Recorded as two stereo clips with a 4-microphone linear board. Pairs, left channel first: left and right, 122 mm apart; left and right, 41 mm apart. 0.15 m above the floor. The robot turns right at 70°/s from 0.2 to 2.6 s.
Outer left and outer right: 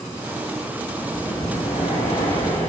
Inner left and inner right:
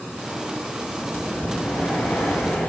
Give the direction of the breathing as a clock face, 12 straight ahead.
11 o'clock.